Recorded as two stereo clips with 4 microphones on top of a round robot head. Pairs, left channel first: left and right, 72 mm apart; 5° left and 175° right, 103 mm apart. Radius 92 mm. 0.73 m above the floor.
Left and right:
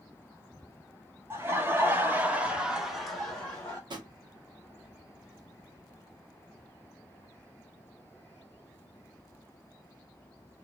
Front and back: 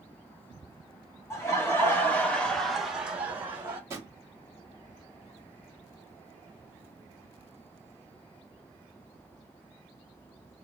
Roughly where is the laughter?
Ahead right.